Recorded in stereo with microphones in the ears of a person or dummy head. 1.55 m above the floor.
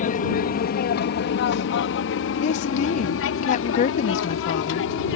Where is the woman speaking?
45° left (ahead or behind).